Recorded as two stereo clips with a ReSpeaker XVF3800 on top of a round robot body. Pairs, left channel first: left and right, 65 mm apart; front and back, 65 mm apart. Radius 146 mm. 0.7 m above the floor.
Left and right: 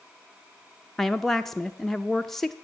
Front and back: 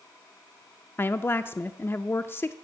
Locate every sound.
1.0 s a woman speaking: 10° left, 0.5 m